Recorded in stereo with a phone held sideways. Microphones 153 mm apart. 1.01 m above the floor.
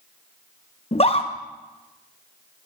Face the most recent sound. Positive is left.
turn(degrees=40)  # may be behind; listen again after turning